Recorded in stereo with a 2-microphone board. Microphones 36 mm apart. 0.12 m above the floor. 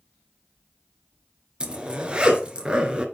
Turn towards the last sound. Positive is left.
turn(degrees=-25)  # may be behind; listen again after turning